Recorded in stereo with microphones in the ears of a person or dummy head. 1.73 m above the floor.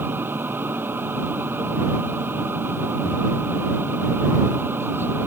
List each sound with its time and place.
0.0 s a machine running: 10° right (ahead or behind)